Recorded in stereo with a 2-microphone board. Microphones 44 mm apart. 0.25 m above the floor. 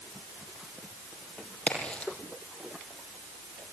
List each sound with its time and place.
1.7 s a crack: 25° left (ahead or behind), 6.5 m